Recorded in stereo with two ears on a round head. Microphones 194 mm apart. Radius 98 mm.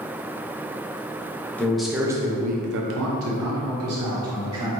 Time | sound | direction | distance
1.6 | a man speaking | 10° left (ahead or behind) | 0.9 m